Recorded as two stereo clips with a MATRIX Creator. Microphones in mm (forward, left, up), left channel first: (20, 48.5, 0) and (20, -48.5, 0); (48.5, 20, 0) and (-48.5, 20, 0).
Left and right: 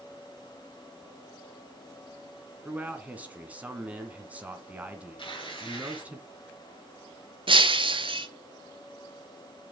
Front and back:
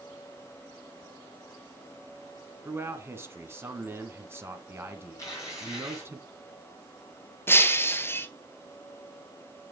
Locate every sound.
2.6 s a man speaking: 150° right, 1.3 m
5.2 s tearing paper: 55° left, 5.5 m
7.5 s breaking glass: 65° right, 0.8 m